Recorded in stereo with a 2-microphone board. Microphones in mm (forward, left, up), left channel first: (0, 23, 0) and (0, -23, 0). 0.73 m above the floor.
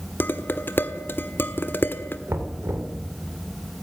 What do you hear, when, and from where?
0.2 s dishes clattering: 50° left (ahead or behind), 1.4 m
2.3 s knocking: 70° right (ahead or behind), 2.5 m